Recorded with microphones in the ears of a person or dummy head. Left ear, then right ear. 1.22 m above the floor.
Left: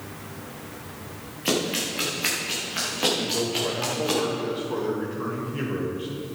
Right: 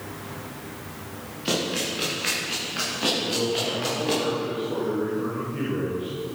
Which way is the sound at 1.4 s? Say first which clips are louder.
Left 1 dB; 25° left (ahead or behind).